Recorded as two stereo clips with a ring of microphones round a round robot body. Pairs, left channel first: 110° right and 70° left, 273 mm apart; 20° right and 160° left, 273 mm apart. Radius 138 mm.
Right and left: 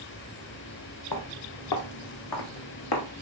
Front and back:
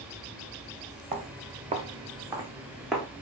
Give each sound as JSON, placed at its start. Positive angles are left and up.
{"t": 1.1, "sound": "footsteps", "azimuth_deg": -145, "distance_m": 1.8}